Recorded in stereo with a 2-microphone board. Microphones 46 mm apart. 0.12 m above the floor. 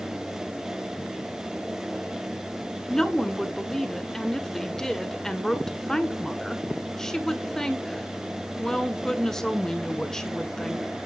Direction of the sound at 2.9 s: 10° left (ahead or behind).